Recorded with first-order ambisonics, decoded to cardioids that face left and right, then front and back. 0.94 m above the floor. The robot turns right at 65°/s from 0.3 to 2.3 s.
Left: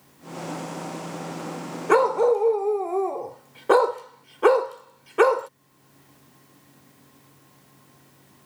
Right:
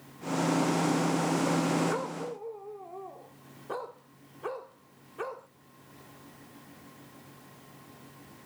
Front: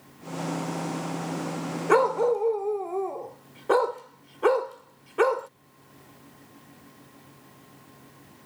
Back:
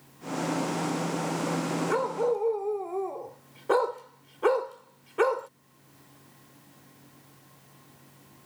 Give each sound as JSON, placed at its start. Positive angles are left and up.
{"t": 1.9, "sound": "a dog barking", "azimuth_deg": 55}